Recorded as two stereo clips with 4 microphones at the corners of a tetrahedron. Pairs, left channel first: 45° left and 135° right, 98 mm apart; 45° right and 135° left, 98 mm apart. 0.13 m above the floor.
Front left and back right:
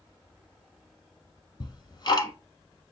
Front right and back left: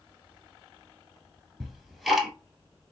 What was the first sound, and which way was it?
Ticking, 50° left.